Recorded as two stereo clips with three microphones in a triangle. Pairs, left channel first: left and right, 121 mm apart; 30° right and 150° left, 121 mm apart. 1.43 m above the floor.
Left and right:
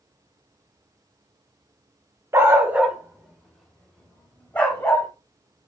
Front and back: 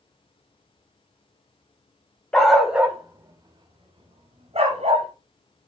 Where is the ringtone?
No ringtone in this recording.